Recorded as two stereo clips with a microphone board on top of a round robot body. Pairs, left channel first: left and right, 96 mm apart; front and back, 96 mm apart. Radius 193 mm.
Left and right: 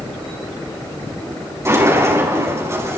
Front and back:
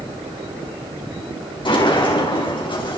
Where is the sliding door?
30° right, 5.5 m.